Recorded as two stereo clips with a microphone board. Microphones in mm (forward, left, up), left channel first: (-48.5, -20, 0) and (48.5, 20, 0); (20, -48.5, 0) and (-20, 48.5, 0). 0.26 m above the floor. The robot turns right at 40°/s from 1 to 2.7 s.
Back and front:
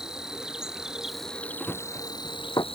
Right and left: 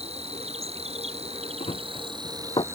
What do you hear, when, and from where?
0.0 s an insect: 105° left; by 2.8 s 175° left
1.6 s running footsteps: 75° right; by 2.6 s 105° right